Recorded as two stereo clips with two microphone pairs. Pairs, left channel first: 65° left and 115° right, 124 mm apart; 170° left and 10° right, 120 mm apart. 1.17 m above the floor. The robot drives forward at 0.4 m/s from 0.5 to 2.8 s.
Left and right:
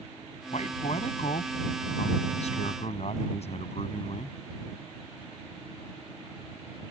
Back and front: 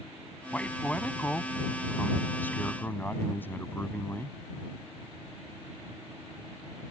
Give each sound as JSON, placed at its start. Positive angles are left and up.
{"t": 0.5, "sound": "a man speaking", "azimuth_deg": 90}